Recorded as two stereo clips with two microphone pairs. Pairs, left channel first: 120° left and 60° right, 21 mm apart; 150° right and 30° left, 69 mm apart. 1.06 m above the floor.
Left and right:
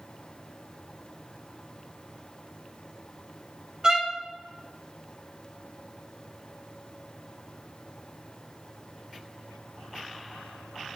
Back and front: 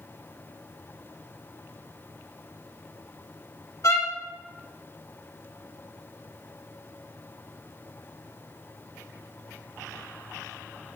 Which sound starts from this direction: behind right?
A violin, at 3.8 s.